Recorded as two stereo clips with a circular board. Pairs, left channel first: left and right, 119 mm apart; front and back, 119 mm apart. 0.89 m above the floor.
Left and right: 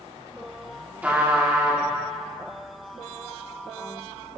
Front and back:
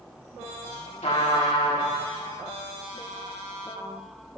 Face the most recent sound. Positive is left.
turn(degrees=-15)